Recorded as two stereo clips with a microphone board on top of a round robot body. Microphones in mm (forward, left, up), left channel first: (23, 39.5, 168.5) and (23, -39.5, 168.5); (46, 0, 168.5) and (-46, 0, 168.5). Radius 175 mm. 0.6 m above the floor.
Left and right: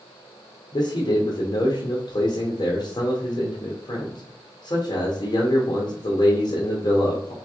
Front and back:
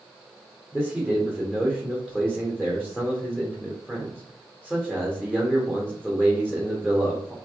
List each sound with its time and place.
0.7 s a man speaking: 80° left, 1.4 m